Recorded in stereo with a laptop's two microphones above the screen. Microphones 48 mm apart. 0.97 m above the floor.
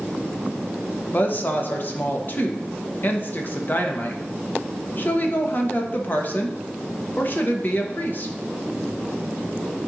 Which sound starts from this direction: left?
A woman speaking, at 1.1 s.